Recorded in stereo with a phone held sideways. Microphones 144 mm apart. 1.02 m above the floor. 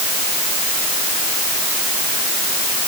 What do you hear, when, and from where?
Only background noise.